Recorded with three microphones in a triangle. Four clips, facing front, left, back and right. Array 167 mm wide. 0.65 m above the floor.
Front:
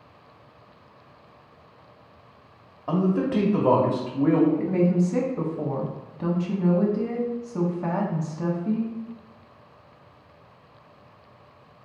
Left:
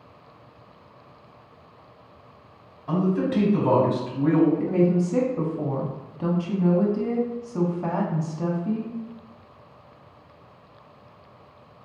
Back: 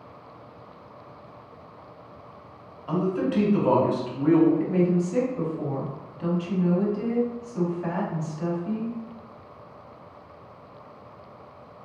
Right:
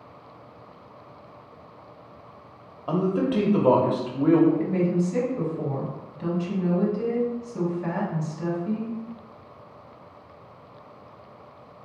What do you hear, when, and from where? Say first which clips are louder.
2.9 s a man speaking: even, front 2 dB; 50° right, 1.1 m
4.6 s a woman speaking: left 3 dB, front 1 dB; 45° left, 1.0 m